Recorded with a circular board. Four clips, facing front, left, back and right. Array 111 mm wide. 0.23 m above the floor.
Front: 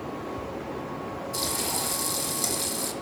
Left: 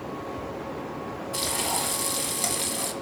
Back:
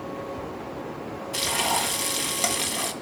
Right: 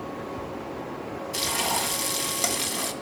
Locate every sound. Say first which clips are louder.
1.3 s frying: right 2 dB, back 8 dB; 160° right, 1.6 m